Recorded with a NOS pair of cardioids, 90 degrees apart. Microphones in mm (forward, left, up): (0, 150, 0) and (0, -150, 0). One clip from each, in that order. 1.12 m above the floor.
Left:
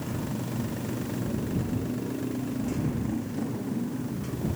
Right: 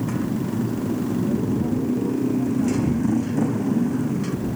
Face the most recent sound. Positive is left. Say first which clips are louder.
# right 8 dB
turn(degrees=-65)